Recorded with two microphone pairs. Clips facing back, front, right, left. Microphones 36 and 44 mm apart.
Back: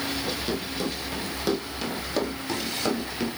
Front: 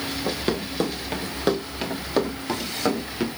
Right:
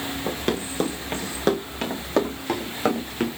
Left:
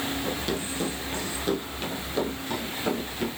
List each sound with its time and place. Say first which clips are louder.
0.3 s running footsteps: front 3 dB, right 3 dB; 45° right, 3.5 m; by 3.3 s 75° right, 6.5 m